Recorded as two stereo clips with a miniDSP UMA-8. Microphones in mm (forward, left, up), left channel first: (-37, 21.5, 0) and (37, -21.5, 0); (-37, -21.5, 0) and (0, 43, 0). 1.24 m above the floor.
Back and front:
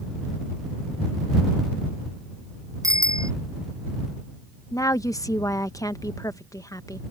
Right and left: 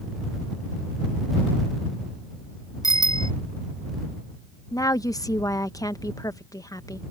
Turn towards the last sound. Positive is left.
turn(degrees=-160)